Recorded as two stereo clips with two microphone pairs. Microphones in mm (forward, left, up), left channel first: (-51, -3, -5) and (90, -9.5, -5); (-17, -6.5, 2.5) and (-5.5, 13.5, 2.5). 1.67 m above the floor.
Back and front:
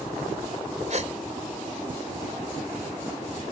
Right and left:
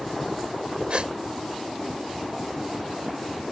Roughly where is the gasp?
Ahead left.